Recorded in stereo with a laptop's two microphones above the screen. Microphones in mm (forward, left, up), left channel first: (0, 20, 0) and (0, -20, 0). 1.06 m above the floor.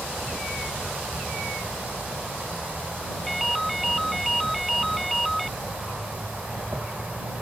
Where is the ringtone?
Centre (ahead or behind).